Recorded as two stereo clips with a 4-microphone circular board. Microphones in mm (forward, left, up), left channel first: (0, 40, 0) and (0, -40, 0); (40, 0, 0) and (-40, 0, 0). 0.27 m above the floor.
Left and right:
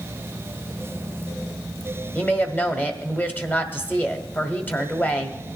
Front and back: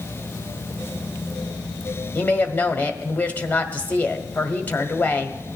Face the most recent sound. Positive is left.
turn(degrees=50)